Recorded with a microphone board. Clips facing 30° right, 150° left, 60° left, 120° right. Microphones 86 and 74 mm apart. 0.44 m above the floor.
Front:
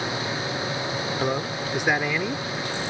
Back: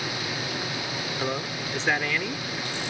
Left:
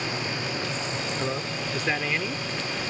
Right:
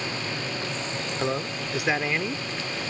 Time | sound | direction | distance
1.2 | a man speaking | 75° right | ?